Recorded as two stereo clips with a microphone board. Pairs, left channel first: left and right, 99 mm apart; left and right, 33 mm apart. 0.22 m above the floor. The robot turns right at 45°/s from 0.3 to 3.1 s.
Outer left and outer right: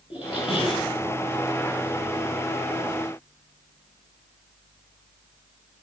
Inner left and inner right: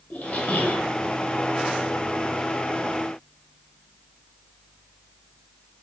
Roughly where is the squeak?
Left.